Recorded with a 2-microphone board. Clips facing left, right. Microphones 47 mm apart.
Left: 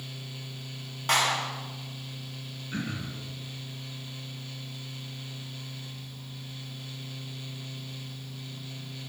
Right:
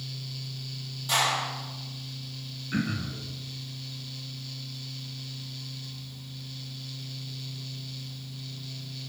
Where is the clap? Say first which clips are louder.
Left 1 dB; 60° left (ahead or behind), 6.5 m.